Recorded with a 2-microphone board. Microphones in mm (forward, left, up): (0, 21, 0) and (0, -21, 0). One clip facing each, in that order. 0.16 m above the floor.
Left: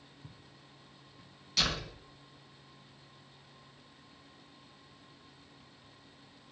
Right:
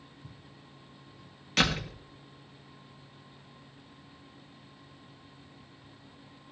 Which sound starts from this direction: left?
Footsteps, at 0.2 s.